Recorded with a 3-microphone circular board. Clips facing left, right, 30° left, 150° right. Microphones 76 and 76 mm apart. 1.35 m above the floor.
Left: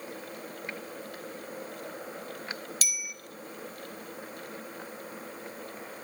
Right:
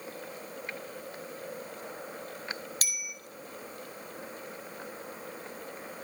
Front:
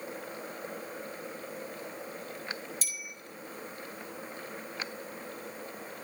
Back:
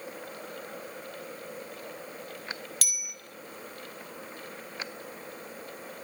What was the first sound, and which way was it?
A bicycle bell, 135° right.